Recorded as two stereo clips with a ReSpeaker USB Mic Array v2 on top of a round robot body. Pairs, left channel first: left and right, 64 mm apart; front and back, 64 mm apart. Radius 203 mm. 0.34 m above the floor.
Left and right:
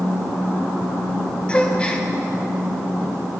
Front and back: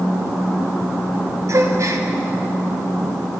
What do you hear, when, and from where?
1.5 s a gasp: 160° left, 1.4 m